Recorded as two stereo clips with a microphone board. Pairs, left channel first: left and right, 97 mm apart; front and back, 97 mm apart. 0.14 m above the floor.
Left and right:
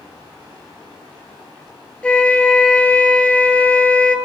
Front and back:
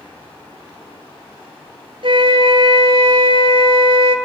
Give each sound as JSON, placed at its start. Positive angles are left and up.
{"t": 2.0, "sound": "a flute", "azimuth_deg": 170, "distance_m": 0.7}